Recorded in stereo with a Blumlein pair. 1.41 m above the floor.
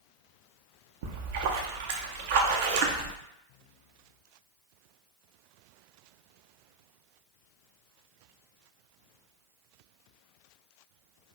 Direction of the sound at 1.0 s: 50° right.